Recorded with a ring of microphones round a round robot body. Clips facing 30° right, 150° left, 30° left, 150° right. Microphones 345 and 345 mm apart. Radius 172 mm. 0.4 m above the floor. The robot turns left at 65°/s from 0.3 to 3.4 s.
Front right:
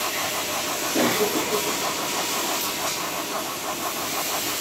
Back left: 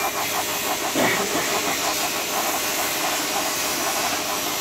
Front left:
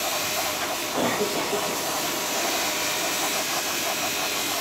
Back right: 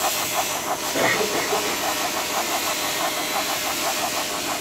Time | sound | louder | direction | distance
0.9 | a cough | front right 2 dB, back right 2 dB | 145° right | 5.5 m